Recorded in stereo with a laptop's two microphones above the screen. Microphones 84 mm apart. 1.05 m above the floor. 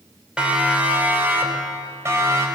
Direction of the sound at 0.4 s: 10° right (ahead or behind).